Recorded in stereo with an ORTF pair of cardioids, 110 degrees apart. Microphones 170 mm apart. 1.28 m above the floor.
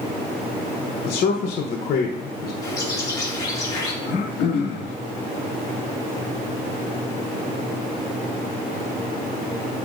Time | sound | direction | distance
1.1 | a man speaking | 60° left | 1.0 m
2.6 | a bird | 20° left | 3.5 m
4.0 | throat clearing | 70° left | 1.9 m